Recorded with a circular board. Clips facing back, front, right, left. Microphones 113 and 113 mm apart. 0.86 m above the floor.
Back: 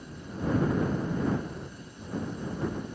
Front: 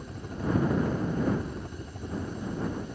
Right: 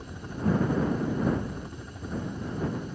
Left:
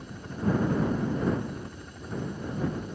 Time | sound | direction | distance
0.0 | a helicopter | 15° right | ?